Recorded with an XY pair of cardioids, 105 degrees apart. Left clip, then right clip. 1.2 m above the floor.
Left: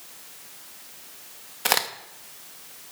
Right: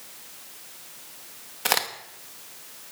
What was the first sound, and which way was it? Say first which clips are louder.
A crack: left 1 dB; 10° left.